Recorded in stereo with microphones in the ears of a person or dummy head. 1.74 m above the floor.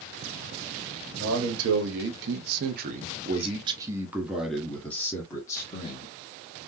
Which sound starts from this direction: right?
A man speaking, at 1.2 s.